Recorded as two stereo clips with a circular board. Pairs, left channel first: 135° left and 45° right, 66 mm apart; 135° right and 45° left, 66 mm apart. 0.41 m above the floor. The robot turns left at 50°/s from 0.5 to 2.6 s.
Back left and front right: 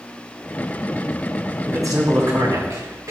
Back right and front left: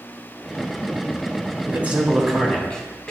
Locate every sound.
1.7 s a man speaking: 15° right, 2.5 m; by 3.1 s 60° right, 2.5 m